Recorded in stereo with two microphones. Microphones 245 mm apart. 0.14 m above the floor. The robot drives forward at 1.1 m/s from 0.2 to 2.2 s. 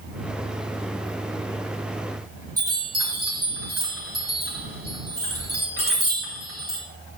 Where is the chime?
70° right (ahead or behind), 5 m.